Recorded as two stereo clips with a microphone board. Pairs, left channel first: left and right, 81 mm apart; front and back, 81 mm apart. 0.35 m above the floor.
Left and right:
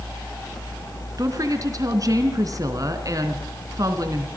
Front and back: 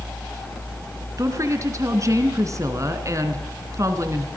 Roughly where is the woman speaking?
Behind right.